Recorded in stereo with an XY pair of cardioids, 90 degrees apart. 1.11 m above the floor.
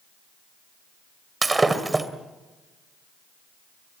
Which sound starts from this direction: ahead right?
Breaking glass, at 1.4 s.